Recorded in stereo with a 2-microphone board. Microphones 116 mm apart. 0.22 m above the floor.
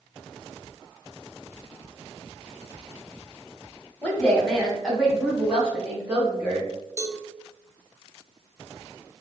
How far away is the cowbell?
About 0.7 m.